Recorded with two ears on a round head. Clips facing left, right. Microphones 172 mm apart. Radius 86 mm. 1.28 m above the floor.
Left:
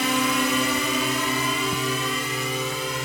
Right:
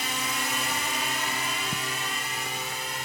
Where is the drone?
60° left (ahead or behind); by 3.0 s 65° left (ahead or behind).